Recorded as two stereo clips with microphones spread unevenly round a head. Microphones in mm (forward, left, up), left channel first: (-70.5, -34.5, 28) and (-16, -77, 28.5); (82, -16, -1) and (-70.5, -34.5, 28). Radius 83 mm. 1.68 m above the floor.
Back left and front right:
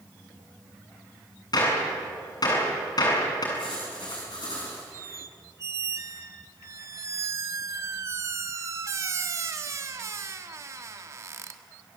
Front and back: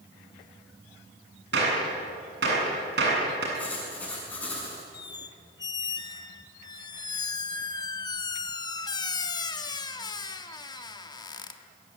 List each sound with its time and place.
1.5 s a gunshot: 160° left, 8 m
3.5 s writing: 90° left, 7 m
4.9 s a squeak: 60° right, 1.5 m